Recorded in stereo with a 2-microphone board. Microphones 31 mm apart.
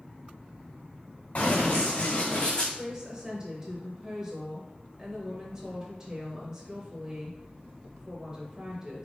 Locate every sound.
1.4 s running footsteps: 45° left (ahead or behind), 1.7 m; by 2.6 s 20° left (ahead or behind), 1.4 m
2.7 s a woman speaking: 20° right (ahead or behind), 0.9 m